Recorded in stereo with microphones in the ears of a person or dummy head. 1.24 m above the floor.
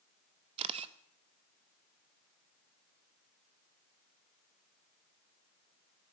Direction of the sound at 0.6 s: 30° right (ahead or behind).